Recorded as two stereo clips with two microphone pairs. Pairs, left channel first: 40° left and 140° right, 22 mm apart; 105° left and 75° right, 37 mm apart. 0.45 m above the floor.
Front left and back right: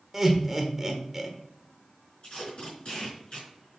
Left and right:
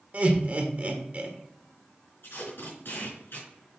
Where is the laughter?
70° right, 1.5 m.